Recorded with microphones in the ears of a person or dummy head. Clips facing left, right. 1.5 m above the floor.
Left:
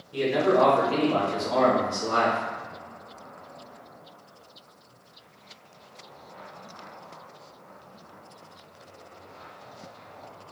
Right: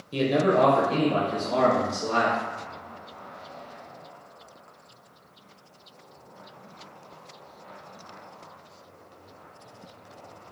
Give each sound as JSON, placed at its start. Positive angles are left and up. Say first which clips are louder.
{"t": 0.1, "sound": "a man speaking", "louder": "even", "side_deg": -75, "distance_m": 0.7}